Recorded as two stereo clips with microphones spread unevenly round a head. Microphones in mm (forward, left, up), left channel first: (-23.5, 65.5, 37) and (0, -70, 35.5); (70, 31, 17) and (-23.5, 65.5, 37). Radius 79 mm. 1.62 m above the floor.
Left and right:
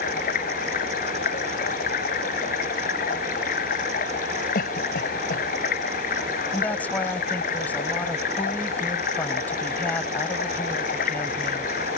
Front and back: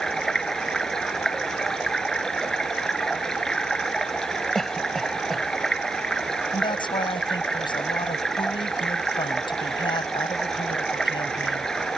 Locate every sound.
0.0 s running water: 65° left
4.5 s a cough: 70° left
6.5 s a woman speaking: 20° left